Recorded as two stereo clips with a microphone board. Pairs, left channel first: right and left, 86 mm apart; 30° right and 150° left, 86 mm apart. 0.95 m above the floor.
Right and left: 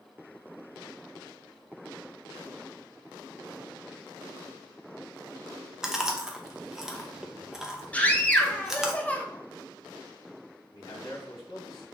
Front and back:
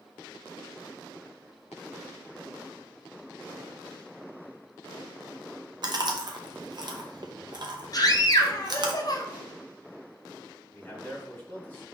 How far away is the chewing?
About 0.6 m.